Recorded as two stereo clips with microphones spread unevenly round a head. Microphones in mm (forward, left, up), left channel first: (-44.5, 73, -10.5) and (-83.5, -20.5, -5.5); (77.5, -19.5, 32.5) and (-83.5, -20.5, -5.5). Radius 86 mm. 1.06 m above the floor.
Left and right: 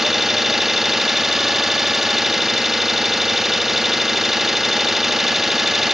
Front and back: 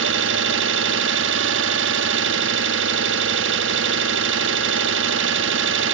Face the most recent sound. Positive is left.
turn(degrees=165)